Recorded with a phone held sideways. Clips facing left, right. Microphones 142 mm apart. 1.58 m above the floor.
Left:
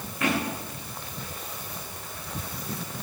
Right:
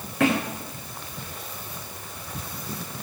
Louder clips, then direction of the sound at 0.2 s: Right 5 dB; 75° right (ahead or behind).